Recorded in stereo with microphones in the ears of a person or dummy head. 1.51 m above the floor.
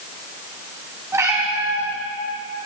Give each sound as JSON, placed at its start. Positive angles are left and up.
{"t": 1.1, "sound": "a cat meowing", "side_deg": -15, "distance_m": 4.0}